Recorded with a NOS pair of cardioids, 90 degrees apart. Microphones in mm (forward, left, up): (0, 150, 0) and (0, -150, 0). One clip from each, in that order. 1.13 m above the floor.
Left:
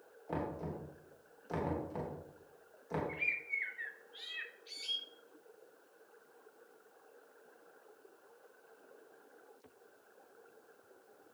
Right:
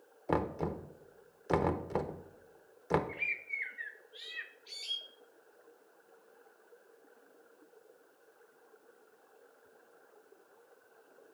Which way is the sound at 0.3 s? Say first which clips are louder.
Right 7 dB; 65° right.